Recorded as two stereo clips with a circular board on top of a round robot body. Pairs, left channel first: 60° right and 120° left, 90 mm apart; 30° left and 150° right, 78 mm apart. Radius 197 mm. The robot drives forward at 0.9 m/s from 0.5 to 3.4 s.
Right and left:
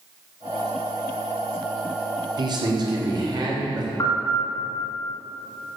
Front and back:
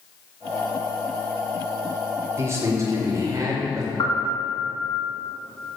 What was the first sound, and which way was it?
A man speaking, 155° left.